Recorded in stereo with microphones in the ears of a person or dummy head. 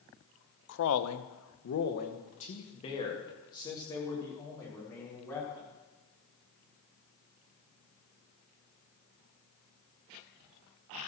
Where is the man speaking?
65° left (ahead or behind), 1.0 m; by 5.7 s 15° left (ahead or behind), 4 m.